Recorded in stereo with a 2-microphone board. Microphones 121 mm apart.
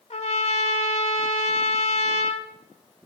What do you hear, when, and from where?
0.1 s a trumpet: 65° left (ahead or behind), 0.6 m